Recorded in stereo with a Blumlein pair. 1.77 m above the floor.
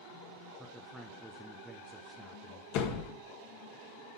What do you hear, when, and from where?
0.6 s a man speaking: 5° right, 1.0 m
2.7 s a door slam: 45° left, 1.8 m